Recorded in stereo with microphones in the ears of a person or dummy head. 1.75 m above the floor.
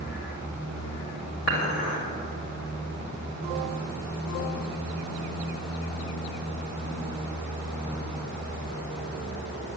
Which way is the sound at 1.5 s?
55° left (ahead or behind).